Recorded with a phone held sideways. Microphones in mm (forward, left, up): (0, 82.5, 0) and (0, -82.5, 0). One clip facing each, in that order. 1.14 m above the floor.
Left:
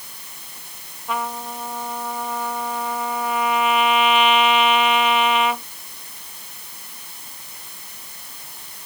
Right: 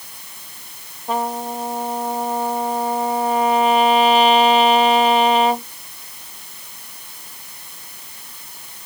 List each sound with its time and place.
1.1 s a trumpet: 35° right (ahead or behind)